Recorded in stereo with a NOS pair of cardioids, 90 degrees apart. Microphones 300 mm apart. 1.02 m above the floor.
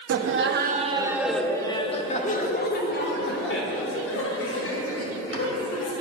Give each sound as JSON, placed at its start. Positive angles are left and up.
{"t": 0.1, "sound": "laughter", "azimuth_deg": -55, "distance_m": 1.5}